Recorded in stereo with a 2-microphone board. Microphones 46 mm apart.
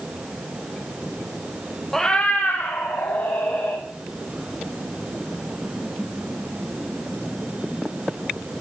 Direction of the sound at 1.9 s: 5° left (ahead or behind).